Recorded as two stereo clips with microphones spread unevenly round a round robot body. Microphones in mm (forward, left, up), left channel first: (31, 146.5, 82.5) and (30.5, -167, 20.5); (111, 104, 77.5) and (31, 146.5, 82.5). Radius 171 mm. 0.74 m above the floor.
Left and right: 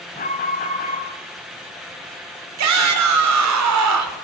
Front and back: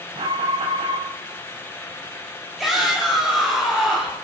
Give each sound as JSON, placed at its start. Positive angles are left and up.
{"t": 0.1, "sound": "an alarm", "azimuth_deg": 155, "distance_m": 4.0}
{"t": 2.6, "sound": "a shout", "azimuth_deg": -120, "distance_m": 3.0}